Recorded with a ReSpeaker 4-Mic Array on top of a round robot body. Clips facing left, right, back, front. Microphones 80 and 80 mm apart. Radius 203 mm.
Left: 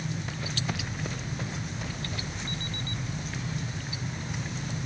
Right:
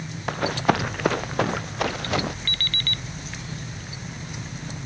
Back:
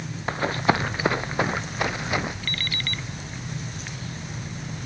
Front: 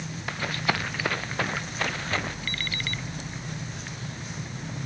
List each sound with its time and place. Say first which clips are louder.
0.3 s running footsteps: right 12 dB, back 6 dB; 120° right; by 2.3 s 105° right
2.5 s an alarm clock: right 3 dB, back 1 dB; 90° right